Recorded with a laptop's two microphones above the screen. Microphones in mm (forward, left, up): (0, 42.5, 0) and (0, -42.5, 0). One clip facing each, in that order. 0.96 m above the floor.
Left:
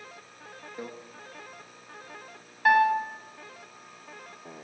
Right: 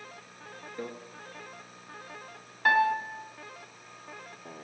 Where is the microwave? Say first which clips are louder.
Right 1 dB; 10° left (ahead or behind), 1.1 m.